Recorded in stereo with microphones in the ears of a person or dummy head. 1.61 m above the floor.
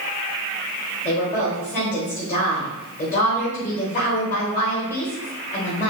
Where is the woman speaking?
40° left (ahead or behind), 2 m.